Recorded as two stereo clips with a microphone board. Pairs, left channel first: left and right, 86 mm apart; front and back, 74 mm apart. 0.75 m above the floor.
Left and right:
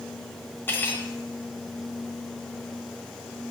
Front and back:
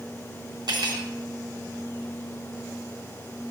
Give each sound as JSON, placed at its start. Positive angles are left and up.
{"t": 0.7, "sound": "cutlery clinking", "azimuth_deg": 155, "distance_m": 1.0}